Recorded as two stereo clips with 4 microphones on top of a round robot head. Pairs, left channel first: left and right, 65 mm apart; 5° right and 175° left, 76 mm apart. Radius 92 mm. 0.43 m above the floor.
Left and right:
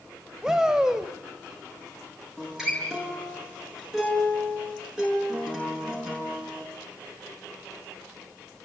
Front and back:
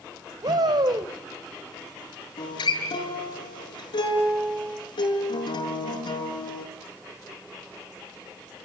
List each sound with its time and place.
0.4 s a shout: 170° right, 3 m
2.4 s a guitar: 10° right, 7 m